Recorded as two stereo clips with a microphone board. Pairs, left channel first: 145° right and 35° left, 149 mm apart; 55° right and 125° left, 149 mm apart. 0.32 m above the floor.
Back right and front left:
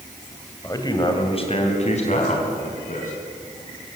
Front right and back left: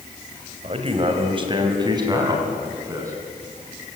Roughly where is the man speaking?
Behind left.